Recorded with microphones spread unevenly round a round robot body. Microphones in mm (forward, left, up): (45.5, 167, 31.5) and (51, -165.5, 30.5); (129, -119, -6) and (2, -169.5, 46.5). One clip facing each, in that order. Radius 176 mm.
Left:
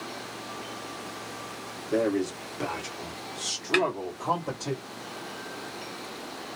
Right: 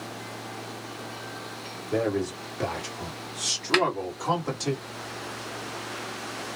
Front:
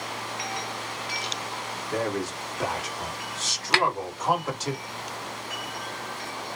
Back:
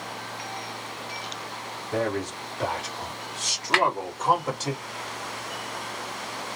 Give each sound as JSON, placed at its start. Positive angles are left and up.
{"t": 1.9, "sound": "a man speaking", "azimuth_deg": 15, "distance_m": 1.6}
{"t": 3.7, "sound": "a snare drum", "azimuth_deg": -20, "distance_m": 1.8}